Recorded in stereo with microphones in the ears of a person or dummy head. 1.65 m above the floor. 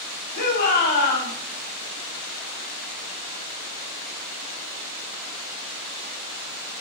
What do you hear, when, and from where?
0.3 s a shout: 60° left (ahead or behind), 3.5 m